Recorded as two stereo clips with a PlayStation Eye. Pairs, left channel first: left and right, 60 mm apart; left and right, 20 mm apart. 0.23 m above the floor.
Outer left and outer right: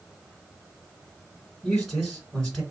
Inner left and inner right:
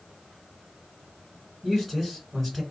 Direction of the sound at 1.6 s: 10° left (ahead or behind).